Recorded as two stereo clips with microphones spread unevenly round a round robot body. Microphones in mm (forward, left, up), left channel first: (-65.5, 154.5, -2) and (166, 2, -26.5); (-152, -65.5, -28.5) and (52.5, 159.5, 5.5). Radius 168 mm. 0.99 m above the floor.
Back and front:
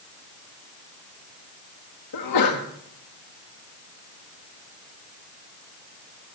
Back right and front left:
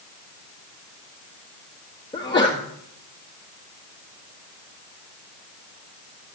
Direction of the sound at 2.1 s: 155° left.